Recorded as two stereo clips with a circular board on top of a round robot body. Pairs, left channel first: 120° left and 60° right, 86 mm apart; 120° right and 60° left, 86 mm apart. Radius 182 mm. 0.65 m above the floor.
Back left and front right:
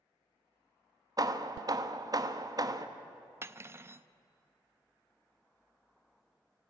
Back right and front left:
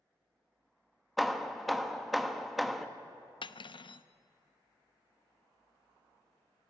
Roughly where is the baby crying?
I don't hear a baby crying.